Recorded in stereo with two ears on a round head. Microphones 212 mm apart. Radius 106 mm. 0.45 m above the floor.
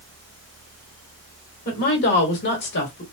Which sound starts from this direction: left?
A woman speaking, at 1.6 s.